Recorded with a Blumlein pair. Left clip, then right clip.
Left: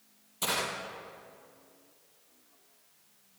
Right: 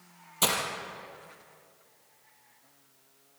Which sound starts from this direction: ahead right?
Breaking glass, at 0.4 s.